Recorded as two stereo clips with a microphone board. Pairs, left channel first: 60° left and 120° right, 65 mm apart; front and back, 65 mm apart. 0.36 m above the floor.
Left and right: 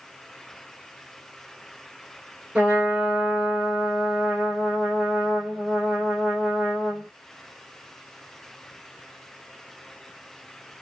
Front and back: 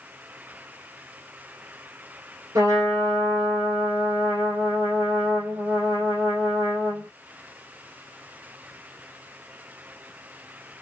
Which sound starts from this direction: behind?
A trumpet, at 2.5 s.